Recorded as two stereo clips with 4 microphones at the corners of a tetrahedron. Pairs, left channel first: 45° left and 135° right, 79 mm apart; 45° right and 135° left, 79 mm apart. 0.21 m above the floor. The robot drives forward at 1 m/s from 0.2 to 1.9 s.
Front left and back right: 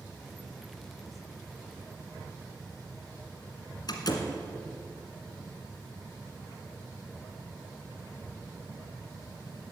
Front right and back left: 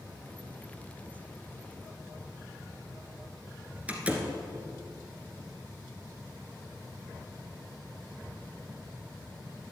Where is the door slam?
65° left, 1.5 m.